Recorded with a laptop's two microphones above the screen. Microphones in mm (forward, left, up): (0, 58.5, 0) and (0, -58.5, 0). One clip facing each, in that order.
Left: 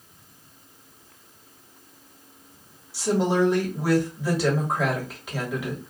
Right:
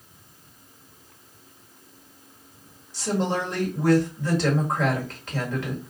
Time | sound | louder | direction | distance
2.9 | a woman speaking | left 4 dB | 10° left (ahead or behind) | 1.7 m